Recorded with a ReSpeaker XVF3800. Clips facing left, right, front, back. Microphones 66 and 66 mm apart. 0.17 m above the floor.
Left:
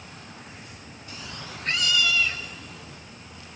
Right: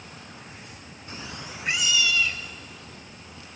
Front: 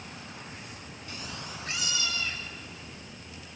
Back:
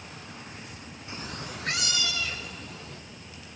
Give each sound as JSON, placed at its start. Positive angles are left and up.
{"t": 1.1, "sound": "a cat meowing", "azimuth_deg": -125, "distance_m": 0.5}